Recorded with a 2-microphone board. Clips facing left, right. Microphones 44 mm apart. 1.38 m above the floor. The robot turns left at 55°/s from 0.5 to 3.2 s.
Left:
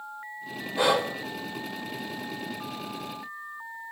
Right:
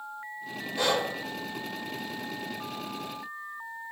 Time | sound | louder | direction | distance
0.8 | breathing | left 4 dB | 20° left (ahead or behind) | 1.1 m